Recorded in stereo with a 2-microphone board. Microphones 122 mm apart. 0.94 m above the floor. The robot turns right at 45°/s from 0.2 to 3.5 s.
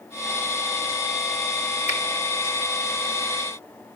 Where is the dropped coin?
I don't hear a dropped coin.